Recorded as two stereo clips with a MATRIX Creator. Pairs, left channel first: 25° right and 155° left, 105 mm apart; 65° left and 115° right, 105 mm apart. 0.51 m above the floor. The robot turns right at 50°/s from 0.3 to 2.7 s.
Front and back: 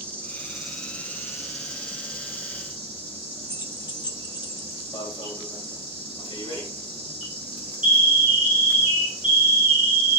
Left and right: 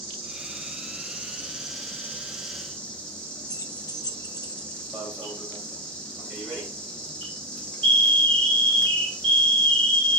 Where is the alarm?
20° right, 3 m.